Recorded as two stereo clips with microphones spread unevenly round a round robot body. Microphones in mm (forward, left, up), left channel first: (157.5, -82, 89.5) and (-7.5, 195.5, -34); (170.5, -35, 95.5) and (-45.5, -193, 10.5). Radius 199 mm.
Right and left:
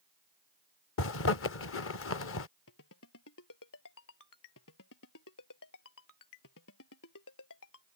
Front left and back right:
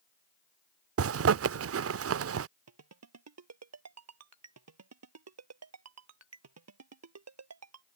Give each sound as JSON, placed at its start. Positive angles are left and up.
{"t": 1.0, "sound": "a zipper", "azimuth_deg": -125}
{"t": 2.7, "sound": "a ringtone", "azimuth_deg": -115}